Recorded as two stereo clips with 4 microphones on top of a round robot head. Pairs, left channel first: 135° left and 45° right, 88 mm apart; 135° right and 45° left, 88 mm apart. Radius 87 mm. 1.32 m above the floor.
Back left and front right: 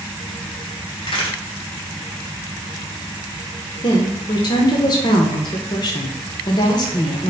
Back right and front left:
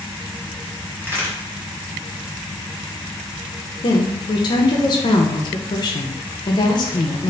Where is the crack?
110° left, 1.5 m.